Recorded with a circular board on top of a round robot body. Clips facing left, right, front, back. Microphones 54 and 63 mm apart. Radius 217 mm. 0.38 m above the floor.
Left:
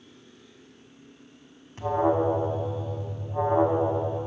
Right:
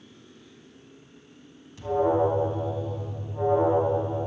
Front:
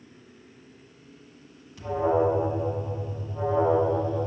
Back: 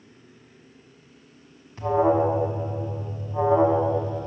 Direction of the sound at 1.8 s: 130° left.